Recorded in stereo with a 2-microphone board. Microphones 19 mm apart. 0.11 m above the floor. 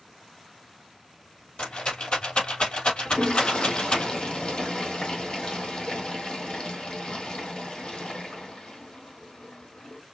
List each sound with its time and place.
1.6 s a rattle: 65° left (ahead or behind), 3 m
3.0 s a toilet flushing: 55° left (ahead or behind), 2.5 m